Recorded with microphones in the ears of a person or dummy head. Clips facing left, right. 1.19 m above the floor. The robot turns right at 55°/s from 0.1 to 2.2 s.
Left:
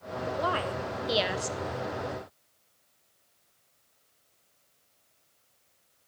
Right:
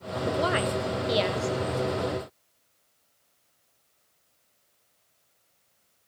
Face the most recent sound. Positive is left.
turn(degrees=65)